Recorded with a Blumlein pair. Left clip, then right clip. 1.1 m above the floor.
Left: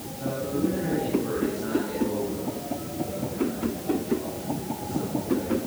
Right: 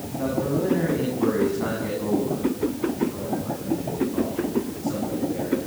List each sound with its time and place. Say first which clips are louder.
0.2 s a man speaking: right 3 dB; 35° right, 9.5 m; by 5.6 s 60° right, 14 m